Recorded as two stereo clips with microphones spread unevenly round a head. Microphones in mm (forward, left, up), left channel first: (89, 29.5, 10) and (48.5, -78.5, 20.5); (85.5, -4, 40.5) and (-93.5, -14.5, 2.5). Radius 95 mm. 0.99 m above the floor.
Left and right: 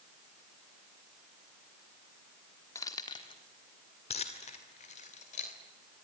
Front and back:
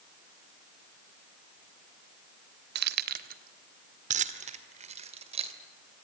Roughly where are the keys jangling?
Behind left.